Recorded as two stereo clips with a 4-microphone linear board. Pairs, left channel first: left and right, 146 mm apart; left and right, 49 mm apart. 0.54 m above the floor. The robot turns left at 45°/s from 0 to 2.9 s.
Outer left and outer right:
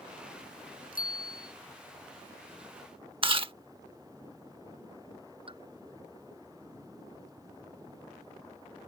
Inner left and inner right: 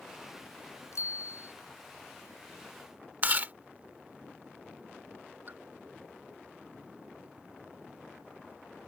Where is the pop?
40° right (ahead or behind).